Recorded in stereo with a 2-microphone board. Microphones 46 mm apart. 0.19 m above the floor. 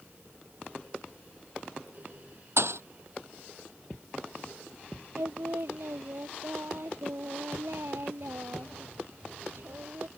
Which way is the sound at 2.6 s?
80° right.